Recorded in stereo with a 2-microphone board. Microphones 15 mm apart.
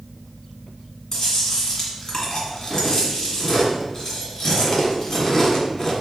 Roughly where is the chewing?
Left.